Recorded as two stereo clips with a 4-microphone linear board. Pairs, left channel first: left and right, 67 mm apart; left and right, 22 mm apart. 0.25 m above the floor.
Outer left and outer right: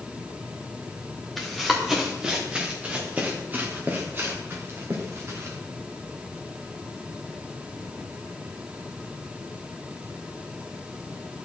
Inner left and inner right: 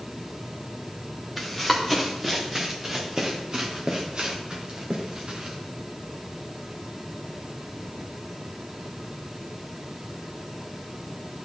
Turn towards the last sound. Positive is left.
turn(degrees=-45)  # may be behind; listen again after turning